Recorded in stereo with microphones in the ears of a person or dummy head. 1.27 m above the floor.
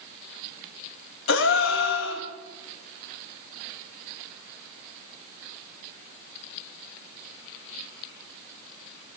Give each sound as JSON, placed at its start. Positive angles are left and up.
{"t": 1.3, "sound": "a gasp", "side_deg": 65, "distance_m": 2.0}